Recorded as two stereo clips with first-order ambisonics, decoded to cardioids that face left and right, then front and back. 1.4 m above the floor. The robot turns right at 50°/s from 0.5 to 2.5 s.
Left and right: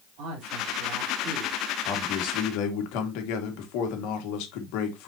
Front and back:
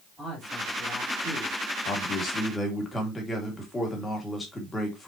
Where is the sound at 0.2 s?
100° right, 4.5 m; by 1.6 s 45° right, 4.5 m.